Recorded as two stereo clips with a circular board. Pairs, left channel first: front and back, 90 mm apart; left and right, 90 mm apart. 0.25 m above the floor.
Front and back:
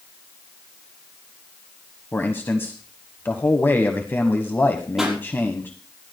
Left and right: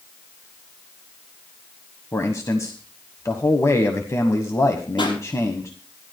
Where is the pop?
95° left, 5.5 m.